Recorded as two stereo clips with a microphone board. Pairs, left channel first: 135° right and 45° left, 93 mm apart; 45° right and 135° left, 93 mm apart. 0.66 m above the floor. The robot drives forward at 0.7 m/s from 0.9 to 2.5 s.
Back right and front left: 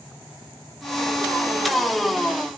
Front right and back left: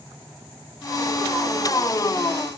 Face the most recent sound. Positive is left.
No sound to turn to.